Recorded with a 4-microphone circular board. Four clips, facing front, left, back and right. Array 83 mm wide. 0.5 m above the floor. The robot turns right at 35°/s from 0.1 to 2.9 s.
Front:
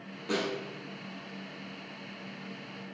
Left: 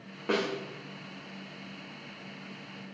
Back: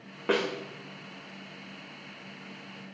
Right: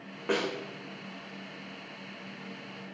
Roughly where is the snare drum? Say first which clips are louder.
Even, back 4 dB; behind.